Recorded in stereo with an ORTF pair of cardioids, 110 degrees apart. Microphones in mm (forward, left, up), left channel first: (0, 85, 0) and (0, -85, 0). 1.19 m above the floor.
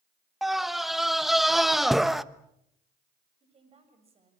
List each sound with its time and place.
0.4 s a scream: straight ahead, 1.0 m
3.4 s a woman speaking: 35° right, 7.5 m